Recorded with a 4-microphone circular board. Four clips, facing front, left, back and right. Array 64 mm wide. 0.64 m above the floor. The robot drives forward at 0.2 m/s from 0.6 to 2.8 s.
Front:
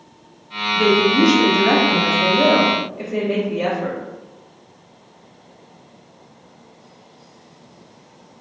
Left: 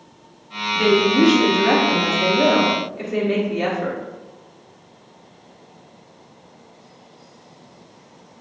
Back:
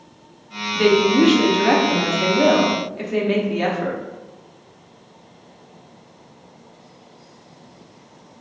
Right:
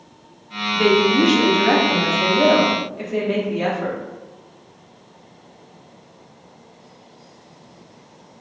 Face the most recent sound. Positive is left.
turn(degrees=-175)